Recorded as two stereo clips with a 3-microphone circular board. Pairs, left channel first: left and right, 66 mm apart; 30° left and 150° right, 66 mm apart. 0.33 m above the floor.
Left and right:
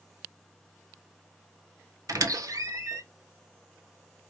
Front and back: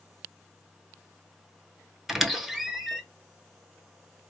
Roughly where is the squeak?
Ahead right.